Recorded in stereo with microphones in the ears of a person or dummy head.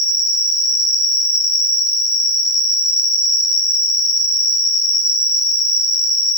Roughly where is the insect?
Centre.